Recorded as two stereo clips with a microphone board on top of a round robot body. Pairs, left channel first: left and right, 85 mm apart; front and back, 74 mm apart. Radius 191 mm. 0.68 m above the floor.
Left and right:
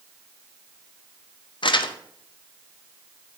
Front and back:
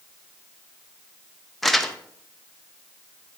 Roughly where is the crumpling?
Left.